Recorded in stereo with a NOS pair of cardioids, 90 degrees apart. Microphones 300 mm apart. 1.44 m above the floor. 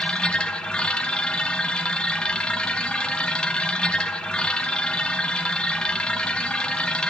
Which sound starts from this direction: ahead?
A machine running, at 0.0 s.